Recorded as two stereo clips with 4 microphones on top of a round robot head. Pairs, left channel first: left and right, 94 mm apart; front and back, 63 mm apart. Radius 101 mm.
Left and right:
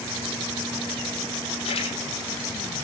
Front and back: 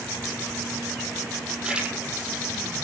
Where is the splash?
105° left, 8.5 m.